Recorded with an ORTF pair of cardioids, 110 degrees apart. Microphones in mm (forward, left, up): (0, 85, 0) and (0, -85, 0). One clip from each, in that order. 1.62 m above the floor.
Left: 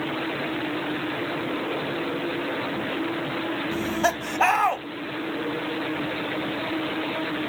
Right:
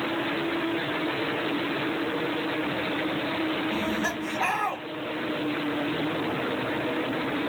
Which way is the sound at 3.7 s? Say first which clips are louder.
Left 4 dB; 45° left.